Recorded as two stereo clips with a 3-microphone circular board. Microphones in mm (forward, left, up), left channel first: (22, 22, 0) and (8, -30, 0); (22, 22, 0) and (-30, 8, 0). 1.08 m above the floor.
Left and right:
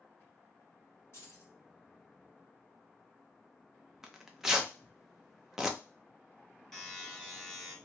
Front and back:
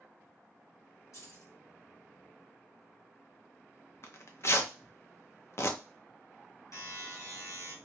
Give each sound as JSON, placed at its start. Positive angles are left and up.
{"t": 1.1, "sound": "keys jangling", "azimuth_deg": 35, "distance_m": 1.4}
{"t": 4.0, "sound": "tearing paper", "azimuth_deg": -25, "distance_m": 0.5}
{"t": 6.7, "sound": "a buzzer", "azimuth_deg": -5, "distance_m": 1.9}